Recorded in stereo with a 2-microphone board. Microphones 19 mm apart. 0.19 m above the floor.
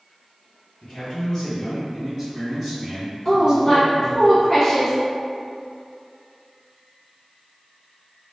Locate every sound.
0.8 s a man speaking: 40° left (ahead or behind), 2.0 m; by 4.2 s 35° right (ahead or behind), 1.7 m
3.2 s a woman speaking: 30° left (ahead or behind), 1.3 m